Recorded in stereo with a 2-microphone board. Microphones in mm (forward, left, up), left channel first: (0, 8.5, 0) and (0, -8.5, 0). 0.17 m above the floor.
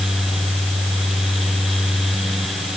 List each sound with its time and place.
Only background noise.